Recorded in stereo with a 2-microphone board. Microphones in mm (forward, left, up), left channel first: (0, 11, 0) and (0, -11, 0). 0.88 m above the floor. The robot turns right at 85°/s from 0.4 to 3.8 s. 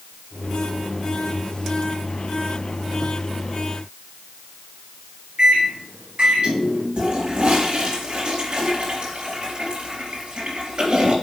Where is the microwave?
55° right (ahead or behind), 2 m.